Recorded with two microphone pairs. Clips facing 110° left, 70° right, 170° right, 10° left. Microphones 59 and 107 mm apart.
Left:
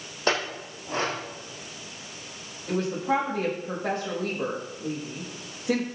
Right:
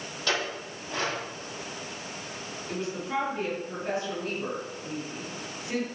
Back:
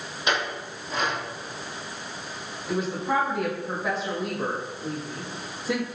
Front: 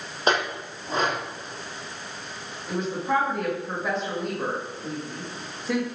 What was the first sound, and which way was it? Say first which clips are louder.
A clink: left 3 dB, front 3 dB; 60° left.